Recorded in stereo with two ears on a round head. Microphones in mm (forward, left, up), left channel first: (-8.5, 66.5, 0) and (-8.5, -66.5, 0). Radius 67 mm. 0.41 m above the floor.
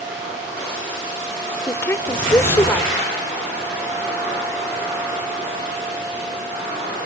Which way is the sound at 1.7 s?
15° left (ahead or behind).